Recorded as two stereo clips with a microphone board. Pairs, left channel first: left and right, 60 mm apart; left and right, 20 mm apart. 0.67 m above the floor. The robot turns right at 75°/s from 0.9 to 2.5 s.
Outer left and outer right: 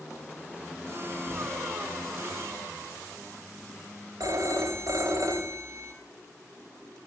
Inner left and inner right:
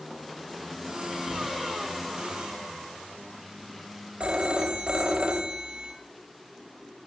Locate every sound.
1.2 s a cupboard door: 40° right (ahead or behind), 4.5 m; by 1.5 s 20° right (ahead or behind), 4.5 m
4.2 s a phone ringing: 70° right (ahead or behind), 2.5 m